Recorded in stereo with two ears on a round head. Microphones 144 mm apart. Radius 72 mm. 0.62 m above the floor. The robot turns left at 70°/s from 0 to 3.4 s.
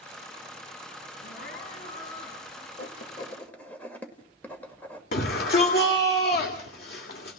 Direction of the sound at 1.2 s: 105° left.